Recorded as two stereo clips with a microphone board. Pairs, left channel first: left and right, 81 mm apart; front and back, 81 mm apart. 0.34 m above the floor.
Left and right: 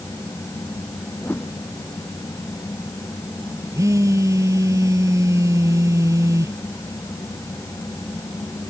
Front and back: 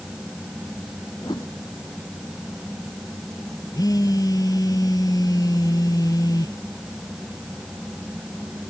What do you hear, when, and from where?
1.2 s a whoosh: 30° left
3.7 s a phone buzzing: 40° right